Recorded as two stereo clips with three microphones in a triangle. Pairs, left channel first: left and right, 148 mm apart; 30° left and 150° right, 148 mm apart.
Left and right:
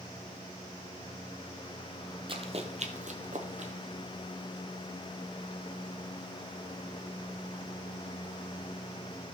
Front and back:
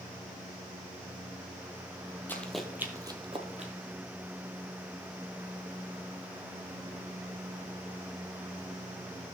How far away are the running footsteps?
About 1.4 m.